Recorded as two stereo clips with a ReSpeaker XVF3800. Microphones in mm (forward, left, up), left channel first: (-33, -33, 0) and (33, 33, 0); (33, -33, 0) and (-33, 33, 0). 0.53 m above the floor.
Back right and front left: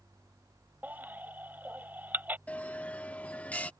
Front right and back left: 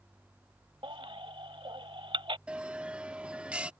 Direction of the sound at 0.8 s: 115° left.